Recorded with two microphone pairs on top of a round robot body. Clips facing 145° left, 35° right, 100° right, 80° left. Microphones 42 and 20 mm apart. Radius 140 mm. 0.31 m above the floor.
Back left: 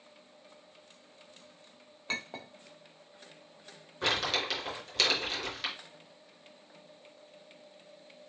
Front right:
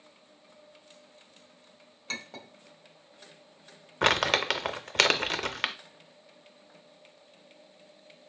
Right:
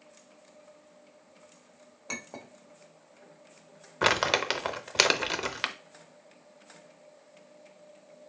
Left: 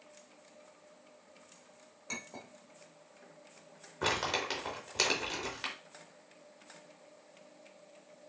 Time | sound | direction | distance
2.1 | a clink | 150° right | 1.3 m
4.0 | crumpling | 65° right | 0.7 m